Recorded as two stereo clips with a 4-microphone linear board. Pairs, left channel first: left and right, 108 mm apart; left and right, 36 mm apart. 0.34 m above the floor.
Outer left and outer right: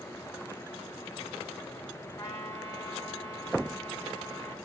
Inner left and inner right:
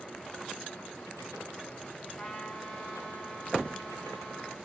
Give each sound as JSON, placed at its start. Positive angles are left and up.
{"t": 2.2, "sound": "a trumpet", "side_deg": 30, "distance_m": 1.8}